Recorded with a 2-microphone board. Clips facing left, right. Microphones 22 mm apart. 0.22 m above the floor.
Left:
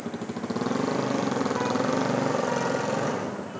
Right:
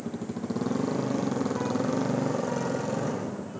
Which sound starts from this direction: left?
A motorcycle, at 0.0 s.